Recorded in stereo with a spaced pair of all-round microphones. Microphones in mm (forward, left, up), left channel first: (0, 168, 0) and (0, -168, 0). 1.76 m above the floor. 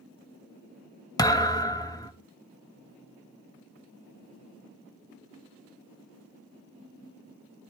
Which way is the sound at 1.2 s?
10° left (ahead or behind).